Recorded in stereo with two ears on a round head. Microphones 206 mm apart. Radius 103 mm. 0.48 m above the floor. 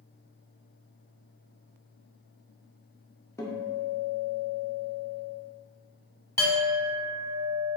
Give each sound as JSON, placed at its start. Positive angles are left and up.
{"t": 3.4, "sound": "a guitar", "side_deg": 10, "distance_m": 0.5}
{"t": 6.4, "sound": "a clink", "side_deg": 10, "distance_m": 0.8}